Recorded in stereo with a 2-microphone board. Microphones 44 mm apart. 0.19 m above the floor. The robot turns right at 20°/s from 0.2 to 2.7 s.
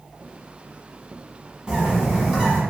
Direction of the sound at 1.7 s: 15° right (ahead or behind).